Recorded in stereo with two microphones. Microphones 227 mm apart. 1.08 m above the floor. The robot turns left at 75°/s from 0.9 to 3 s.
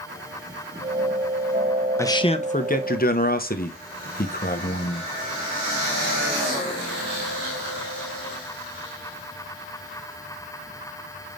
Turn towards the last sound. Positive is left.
turn(degrees=85)